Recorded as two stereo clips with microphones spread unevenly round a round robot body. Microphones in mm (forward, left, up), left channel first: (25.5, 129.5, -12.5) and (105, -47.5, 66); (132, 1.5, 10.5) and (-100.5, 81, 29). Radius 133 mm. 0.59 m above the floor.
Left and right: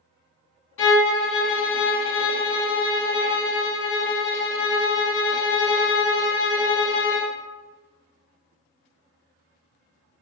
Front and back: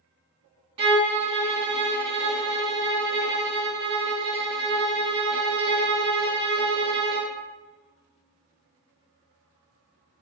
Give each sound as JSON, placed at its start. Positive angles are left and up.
{"t": 0.8, "sound": "a violin", "azimuth_deg": 95, "distance_m": 1.6}